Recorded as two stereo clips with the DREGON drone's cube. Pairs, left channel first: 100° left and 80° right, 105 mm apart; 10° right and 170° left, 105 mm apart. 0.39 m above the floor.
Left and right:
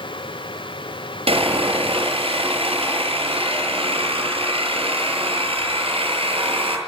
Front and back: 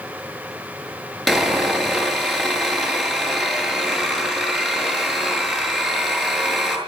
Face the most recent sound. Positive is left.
turn(degrees=-100)